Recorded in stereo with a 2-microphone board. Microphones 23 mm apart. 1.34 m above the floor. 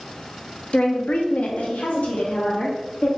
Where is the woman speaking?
55° left (ahead or behind), 0.7 m.